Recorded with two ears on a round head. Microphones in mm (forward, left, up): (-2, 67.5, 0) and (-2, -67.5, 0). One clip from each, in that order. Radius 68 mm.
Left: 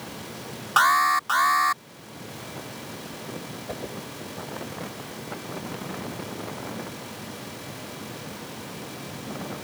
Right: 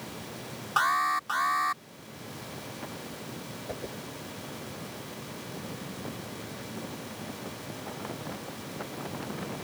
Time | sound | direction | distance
0.8 | an alarm | 30° left (ahead or behind) | ?
3.7 | a whoosh | 10° left (ahead or behind) | ?